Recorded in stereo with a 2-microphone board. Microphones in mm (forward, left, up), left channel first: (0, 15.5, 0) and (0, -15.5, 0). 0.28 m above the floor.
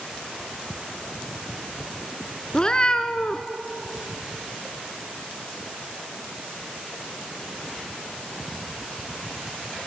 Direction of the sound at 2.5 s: 25° left (ahead or behind).